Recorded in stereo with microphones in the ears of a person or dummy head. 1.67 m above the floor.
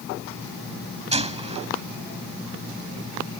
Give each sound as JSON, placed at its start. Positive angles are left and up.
{"t": 1.1, "sound": "a gunshot", "side_deg": -30}